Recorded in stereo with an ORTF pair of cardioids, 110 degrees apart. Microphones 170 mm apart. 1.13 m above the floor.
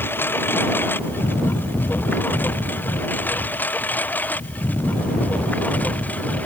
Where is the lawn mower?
10° left.